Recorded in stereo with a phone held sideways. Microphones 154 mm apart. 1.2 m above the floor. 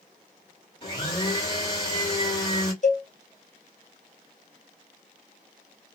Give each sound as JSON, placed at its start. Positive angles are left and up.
{"t": 0.8, "sound": "a blender", "side_deg": 30, "distance_m": 1.5}
{"t": 2.8, "sound": "a cowbell", "side_deg": 50, "distance_m": 0.6}